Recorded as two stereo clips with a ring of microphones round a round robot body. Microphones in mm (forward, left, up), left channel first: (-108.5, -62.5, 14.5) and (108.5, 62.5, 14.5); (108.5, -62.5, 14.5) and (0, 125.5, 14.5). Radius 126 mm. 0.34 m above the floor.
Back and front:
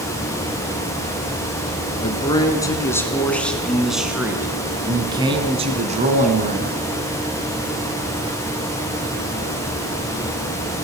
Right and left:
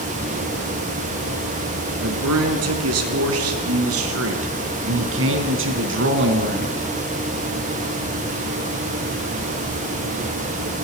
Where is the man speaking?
140° left, 4 m; by 6.8 s 85° left, 3.5 m.